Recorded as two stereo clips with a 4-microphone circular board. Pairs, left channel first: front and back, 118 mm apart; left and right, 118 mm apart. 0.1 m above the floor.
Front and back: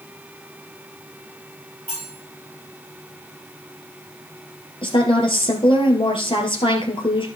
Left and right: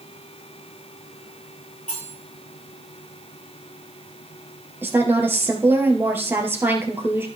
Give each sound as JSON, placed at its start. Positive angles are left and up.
{"t": 1.9, "sound": "cutlery clinking", "azimuth_deg": 115, "distance_m": 8.0}
{"t": 4.8, "sound": "a woman speaking", "azimuth_deg": -25, "distance_m": 2.5}